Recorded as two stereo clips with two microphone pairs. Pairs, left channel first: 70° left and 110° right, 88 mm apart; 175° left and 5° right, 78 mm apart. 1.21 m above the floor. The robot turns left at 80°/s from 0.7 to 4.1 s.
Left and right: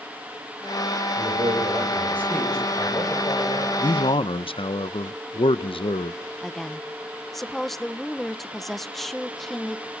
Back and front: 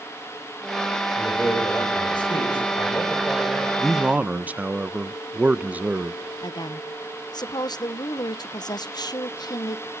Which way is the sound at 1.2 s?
100° right.